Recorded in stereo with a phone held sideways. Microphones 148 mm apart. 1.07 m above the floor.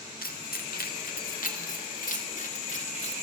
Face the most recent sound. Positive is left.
turn(degrees=50)  # may be behind; listen again after turning